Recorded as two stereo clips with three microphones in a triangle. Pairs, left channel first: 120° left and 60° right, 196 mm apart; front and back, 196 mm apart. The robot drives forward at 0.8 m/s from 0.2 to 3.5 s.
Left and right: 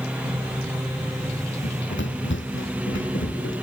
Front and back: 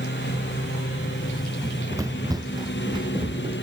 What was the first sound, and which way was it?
A lawn mower, 25° left.